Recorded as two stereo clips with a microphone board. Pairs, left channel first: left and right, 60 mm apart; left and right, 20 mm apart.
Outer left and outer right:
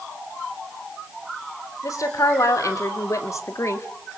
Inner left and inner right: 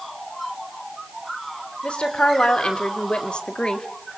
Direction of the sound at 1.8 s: 70° left (ahead or behind).